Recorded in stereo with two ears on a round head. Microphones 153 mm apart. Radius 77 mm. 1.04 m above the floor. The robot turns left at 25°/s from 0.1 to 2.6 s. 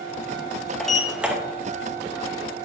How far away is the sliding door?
About 0.9 m.